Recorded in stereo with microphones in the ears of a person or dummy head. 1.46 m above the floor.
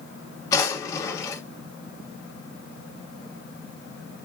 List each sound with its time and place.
0.5 s a drawer: 20° left (ahead or behind), 1.4 m